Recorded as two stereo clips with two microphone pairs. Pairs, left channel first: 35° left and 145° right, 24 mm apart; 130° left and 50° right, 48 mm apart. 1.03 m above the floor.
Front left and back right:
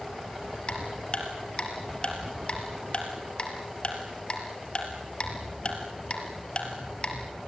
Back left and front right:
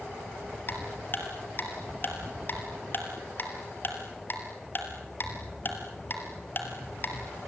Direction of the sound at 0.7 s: 85° left.